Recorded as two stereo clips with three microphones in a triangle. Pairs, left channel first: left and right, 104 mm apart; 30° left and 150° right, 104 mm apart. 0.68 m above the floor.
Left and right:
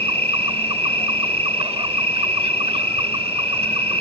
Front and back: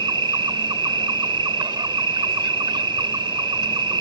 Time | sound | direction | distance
0.0 | an insect | 110° right | ?